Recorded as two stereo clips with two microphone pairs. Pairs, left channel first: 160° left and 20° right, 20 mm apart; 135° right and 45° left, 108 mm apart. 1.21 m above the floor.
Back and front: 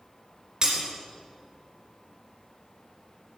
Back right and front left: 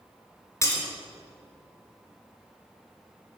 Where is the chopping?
No chopping in this recording.